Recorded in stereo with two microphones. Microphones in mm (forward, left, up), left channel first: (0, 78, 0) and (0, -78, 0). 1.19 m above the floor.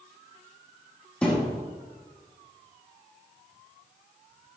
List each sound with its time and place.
1.2 s a thud: 5° left (ahead or behind), 3.5 m